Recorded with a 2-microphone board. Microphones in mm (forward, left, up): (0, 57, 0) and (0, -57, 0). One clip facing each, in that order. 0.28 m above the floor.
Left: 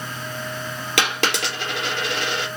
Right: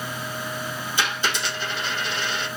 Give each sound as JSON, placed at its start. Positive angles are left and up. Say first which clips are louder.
{"t": 1.0, "sound": "a dropped coin", "louder": "left 4 dB", "side_deg": 85, "distance_m": 3.5}